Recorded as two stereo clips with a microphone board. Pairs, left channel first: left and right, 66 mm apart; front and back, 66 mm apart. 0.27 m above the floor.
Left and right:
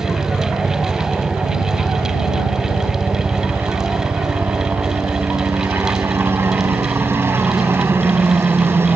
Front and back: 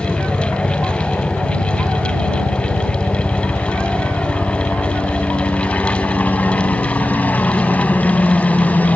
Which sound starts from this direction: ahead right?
A helicopter, at 0.0 s.